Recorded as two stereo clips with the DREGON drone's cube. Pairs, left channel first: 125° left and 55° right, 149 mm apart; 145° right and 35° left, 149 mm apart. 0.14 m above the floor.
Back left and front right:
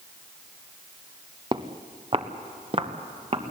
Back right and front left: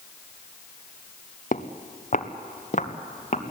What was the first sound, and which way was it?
Footsteps, 115° right.